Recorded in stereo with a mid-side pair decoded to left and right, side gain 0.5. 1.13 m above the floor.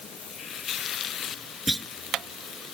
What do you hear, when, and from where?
1.7 s a clunk: 5° right